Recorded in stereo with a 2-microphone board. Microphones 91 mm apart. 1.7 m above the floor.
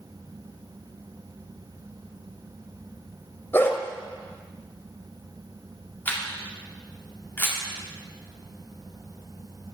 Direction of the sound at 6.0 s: 20° left (ahead or behind).